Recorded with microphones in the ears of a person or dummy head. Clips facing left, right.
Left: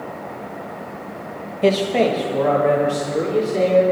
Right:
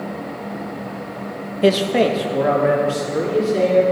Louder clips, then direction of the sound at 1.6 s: Right 1 dB; 15° right (ahead or behind).